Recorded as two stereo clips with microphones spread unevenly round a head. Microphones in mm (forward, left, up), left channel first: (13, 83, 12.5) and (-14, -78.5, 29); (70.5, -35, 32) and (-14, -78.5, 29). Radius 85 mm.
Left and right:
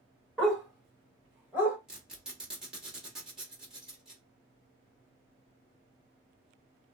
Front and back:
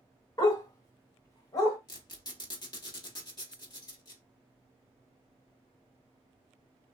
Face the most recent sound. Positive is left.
turn(degrees=-15)